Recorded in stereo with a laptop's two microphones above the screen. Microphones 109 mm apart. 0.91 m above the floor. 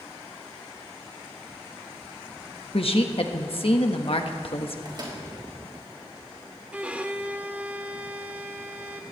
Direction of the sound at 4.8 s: 45° right (ahead or behind).